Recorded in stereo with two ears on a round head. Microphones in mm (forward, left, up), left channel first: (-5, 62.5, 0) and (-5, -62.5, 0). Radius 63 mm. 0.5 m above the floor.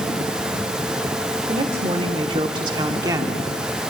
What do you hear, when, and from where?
1.5 s a woman speaking: 35° right (ahead or behind), 1.7 m; by 3.5 s 15° right (ahead or behind), 1.2 m